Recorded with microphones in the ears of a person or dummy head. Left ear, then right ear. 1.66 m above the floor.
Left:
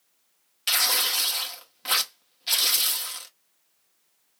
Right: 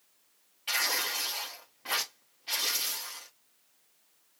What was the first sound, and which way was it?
Tearing paper, 70° left (ahead or behind).